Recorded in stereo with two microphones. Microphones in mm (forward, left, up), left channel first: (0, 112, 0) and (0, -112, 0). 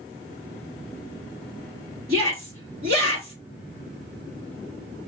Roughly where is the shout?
Right.